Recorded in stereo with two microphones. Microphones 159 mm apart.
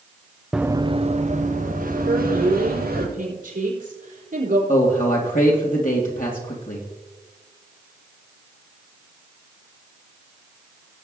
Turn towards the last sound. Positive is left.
turn(degrees=60)  # may be behind; listen again after turning